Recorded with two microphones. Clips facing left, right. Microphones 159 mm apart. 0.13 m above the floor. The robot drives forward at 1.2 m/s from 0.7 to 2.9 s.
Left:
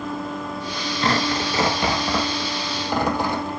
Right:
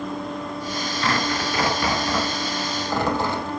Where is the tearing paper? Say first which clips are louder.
Left 3 dB; 35° left (ahead or behind), 1.5 m; by 3.5 s 15° left (ahead or behind), 3.5 m.